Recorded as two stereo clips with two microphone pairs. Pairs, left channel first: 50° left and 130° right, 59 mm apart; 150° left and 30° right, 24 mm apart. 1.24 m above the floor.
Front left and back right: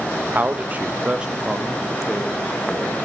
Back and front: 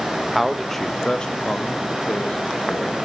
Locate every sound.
0.3 s a man speaking: 95° right, 0.6 m; by 3.0 s 135° left, 1.3 m